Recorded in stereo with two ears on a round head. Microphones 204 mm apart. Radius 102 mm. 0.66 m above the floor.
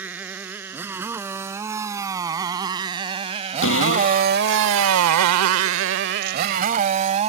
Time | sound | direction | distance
0.0 | a motorcycle | 10° right (ahead or behind) | ?
3.6 | a cupboard door | 65° left (ahead or behind) | ?